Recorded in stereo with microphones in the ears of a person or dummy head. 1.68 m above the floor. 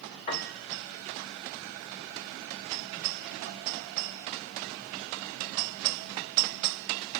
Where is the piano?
30° left (ahead or behind), 1.8 m.